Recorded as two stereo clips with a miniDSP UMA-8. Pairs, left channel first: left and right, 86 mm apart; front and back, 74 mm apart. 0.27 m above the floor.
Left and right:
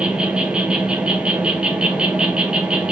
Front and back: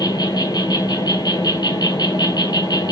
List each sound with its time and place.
0.0 s an insect: 10° right, 0.7 m